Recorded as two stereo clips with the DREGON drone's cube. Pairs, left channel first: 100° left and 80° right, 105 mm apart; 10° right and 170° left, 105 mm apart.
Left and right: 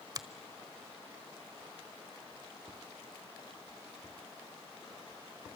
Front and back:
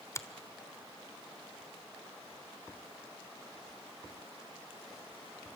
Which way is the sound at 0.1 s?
60° right.